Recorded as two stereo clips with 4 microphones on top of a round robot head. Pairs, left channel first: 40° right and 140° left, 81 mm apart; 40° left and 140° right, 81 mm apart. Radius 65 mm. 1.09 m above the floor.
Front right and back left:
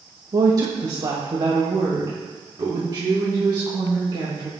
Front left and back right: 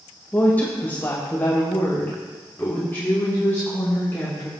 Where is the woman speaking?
105° left, 1.5 m.